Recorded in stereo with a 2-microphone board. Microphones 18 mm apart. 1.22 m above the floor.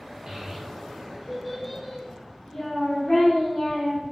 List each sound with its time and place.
0.3 s a child speaking: 40° right (ahead or behind), 1.0 m; by 4.0 s 60° left (ahead or behind), 1.4 m